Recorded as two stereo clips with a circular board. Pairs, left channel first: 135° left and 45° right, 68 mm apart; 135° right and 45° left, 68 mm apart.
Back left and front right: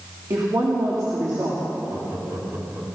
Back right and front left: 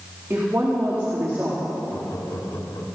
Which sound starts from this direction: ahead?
A woman speaking, at 0.3 s.